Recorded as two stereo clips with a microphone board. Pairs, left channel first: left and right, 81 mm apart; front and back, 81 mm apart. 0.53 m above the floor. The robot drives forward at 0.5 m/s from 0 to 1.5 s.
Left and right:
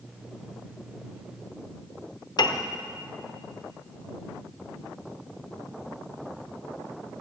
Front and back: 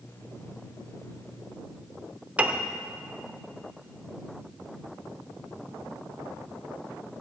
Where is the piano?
110° left, 0.7 m.